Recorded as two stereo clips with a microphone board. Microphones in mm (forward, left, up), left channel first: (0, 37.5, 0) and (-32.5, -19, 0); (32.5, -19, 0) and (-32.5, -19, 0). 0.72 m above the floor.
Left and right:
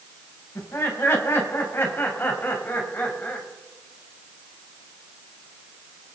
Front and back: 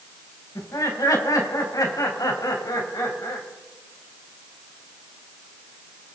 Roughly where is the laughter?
Ahead.